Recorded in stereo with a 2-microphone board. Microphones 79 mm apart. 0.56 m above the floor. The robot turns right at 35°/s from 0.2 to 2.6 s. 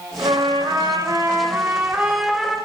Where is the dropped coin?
I don't hear a dropped coin.